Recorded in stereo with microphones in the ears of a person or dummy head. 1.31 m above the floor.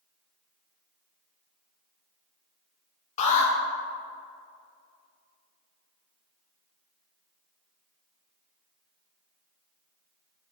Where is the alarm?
40° left (ahead or behind), 2 m.